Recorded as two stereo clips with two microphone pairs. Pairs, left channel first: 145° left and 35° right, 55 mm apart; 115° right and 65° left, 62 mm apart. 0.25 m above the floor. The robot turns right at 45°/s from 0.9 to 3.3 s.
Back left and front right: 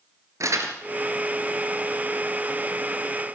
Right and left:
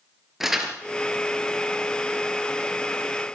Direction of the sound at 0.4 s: 20° right.